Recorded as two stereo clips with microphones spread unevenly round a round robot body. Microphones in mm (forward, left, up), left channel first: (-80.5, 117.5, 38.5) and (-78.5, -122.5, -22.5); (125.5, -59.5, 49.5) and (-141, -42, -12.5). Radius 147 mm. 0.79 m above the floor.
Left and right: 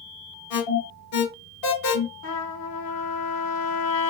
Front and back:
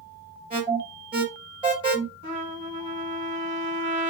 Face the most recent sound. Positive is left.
turn(degrees=125)